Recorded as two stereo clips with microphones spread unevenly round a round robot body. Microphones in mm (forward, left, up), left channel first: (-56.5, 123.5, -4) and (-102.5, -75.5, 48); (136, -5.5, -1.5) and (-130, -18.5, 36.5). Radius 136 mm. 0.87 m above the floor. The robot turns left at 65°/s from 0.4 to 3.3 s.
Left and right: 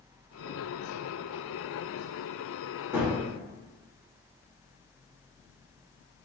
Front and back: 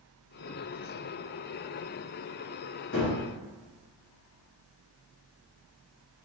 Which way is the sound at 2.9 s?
35° right.